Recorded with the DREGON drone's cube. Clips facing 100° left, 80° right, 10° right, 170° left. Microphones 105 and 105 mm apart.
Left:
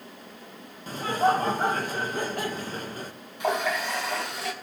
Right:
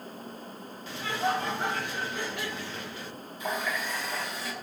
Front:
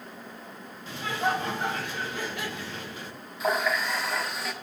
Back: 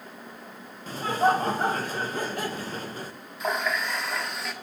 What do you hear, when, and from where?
0.9 s laughter: 130° left, 0.8 m
3.4 s a running tap: 75° left, 1.1 m